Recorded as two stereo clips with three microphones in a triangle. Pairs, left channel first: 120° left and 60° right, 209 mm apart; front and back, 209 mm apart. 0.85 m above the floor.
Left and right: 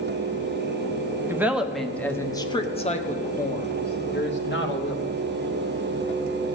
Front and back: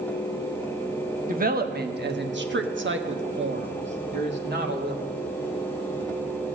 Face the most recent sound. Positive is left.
turn(degrees=140)